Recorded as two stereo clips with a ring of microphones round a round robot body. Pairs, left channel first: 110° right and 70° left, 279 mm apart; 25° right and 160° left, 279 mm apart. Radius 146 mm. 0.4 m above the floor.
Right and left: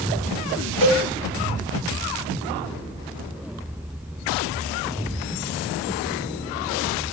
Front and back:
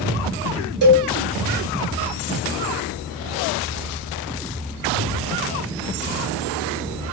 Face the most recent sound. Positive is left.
turn(degrees=-155)